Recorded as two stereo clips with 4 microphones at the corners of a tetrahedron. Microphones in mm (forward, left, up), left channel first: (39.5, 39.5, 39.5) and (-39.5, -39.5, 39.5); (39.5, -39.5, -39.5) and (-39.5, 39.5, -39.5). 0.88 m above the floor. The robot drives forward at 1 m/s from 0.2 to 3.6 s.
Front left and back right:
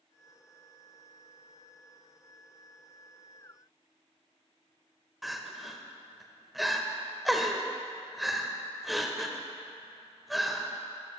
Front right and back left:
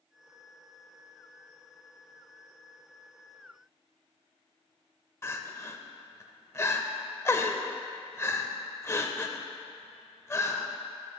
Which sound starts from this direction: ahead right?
Crying, at 5.2 s.